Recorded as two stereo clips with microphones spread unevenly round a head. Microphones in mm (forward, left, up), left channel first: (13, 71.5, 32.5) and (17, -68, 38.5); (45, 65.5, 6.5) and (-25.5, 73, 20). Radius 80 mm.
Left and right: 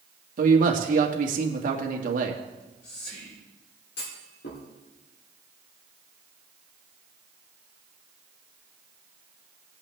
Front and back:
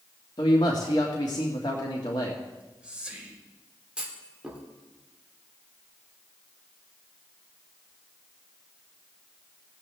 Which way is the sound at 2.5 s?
100° left.